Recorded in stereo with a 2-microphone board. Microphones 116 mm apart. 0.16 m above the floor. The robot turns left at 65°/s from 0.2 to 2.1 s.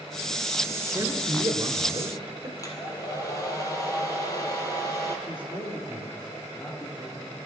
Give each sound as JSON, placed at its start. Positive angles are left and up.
{"t": 0.9, "sound": "a man speaking", "azimuth_deg": -45, "distance_m": 1.6}
{"t": 2.6, "sound": "a hair dryer", "side_deg": 30, "distance_m": 2.0}
{"t": 5.3, "sound": "a man speaking", "side_deg": 40, "distance_m": 3.0}